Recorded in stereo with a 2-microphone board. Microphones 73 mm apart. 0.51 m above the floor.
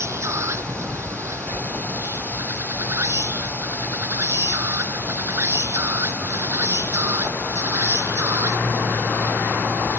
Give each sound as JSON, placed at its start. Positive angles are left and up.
{"t": 0.0, "sound": "an insect", "side_deg": -40}